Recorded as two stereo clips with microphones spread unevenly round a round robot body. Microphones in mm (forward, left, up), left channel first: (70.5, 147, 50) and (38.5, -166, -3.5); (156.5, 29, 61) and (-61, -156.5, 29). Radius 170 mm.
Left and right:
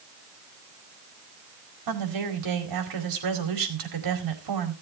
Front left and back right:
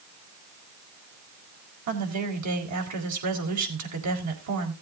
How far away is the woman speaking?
About 4.5 m.